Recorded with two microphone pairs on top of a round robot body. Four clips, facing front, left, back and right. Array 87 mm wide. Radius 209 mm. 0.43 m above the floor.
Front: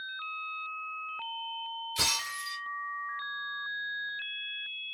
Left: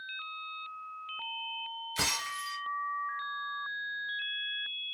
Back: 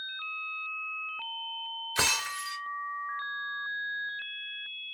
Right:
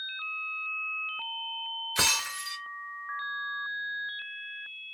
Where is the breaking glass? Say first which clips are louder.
Right 4 dB, back 7 dB; 140° right, 2 m.